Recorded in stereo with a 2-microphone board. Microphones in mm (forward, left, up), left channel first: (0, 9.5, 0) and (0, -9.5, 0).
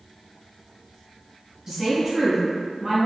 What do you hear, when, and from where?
1.7 s a woman speaking: 25° right (ahead or behind), 1.2 m